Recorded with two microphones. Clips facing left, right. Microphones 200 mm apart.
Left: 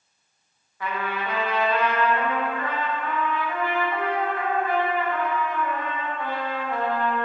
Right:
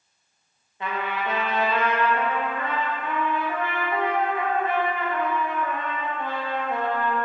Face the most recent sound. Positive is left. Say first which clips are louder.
# right 1 dB
turn(degrees=-20)  # may be behind; listen again after turning